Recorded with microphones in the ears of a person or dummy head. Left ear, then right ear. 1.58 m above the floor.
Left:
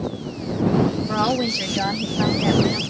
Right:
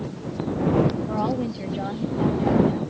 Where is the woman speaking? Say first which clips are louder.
Left 5 dB; 55° left (ahead or behind).